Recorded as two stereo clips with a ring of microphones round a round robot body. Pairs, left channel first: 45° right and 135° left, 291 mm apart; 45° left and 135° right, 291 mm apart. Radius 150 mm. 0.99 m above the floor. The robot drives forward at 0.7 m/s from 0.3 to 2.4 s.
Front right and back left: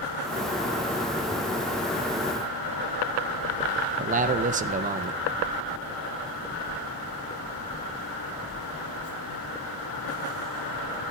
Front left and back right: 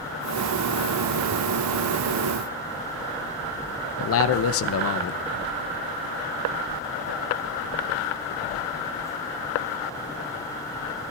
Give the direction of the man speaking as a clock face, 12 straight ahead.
9 o'clock.